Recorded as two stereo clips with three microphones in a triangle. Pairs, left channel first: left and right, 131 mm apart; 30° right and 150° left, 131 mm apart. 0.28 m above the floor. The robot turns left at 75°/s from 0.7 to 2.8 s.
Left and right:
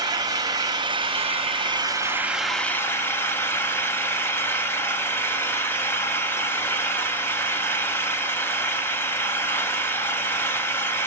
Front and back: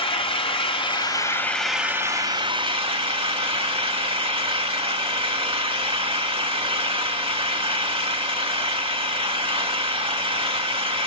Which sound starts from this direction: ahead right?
An engine running, at 0.0 s.